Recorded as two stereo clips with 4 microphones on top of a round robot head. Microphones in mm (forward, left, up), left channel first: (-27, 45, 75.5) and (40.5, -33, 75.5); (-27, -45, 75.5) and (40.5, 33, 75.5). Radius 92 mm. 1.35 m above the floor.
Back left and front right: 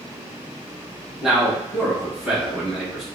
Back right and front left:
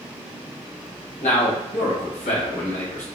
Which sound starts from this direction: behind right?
A man speaking, at 1.2 s.